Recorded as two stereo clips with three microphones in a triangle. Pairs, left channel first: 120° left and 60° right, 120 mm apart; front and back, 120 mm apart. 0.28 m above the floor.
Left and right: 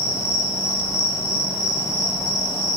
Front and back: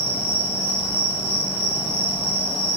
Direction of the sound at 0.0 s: 50° right.